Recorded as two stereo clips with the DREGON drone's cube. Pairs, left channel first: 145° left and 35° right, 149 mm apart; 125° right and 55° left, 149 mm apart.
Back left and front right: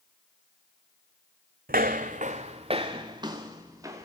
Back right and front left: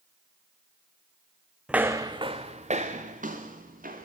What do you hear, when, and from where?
1.7 s footsteps: 30° right, 0.8 m; by 4.1 s 35° left, 2 m